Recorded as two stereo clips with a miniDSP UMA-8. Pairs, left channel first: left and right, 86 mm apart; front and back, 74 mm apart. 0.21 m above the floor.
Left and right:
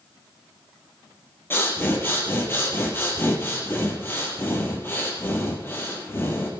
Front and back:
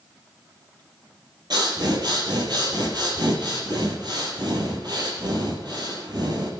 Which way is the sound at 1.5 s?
155° left.